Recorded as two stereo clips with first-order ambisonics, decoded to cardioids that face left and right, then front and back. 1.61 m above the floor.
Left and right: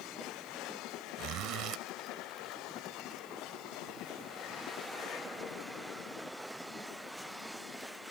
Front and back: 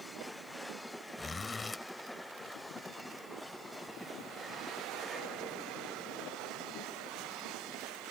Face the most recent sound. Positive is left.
turn(degrees=-75)